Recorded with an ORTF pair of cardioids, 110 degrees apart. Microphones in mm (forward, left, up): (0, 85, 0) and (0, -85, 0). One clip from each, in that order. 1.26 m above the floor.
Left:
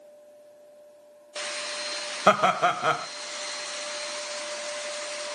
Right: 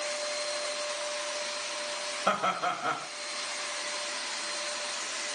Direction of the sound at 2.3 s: 40° left.